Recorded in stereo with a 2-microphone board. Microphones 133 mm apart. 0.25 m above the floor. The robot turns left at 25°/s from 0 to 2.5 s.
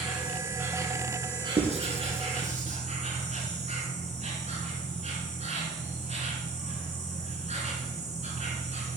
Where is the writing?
55° right (ahead or behind), 1.9 m; by 2.8 s 70° right (ahead or behind), 1.9 m.